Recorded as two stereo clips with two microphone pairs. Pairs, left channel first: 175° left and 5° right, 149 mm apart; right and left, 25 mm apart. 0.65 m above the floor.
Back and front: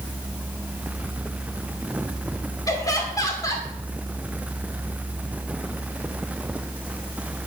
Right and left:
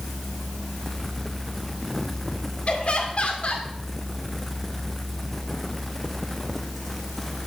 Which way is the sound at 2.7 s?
120° right.